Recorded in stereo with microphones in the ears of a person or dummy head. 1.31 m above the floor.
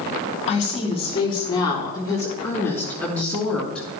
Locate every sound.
0.5 s a woman speaking: 40° left (ahead or behind), 2.5 m; by 3.9 s 5° left (ahead or behind), 4 m